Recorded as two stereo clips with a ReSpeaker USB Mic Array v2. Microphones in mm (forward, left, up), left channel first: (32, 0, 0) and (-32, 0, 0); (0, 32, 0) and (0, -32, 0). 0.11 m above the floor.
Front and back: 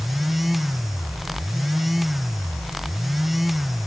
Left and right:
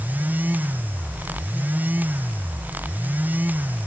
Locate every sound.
Only background noise.